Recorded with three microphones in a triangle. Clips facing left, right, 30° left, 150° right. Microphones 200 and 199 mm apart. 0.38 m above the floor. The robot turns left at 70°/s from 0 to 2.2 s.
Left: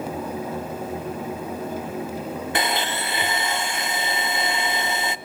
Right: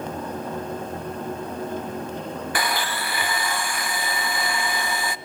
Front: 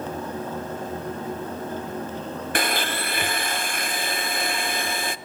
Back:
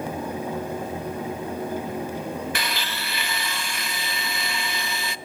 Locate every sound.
2.5 s a blender: 30° left, 0.6 m